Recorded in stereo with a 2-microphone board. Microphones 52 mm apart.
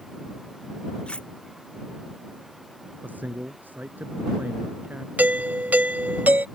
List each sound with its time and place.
1.1 s cutlery clinking: 20° left (ahead or behind)
3.0 s a man speaking: 35° right (ahead or behind)
5.2 s a doorbell: 35° right (ahead or behind)